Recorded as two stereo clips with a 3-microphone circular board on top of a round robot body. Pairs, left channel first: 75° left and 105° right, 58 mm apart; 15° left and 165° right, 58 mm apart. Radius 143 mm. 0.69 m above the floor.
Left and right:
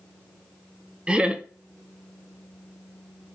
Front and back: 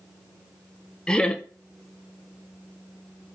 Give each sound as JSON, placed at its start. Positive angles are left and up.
{"t": 1.1, "sound": "laughter", "azimuth_deg": -50, "distance_m": 0.7}